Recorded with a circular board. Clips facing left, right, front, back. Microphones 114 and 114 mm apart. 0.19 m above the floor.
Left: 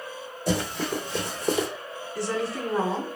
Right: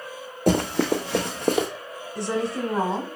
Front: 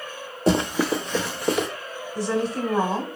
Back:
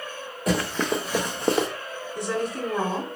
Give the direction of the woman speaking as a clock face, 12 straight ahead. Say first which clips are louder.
Right 3 dB, front 3 dB; 1 o'clock.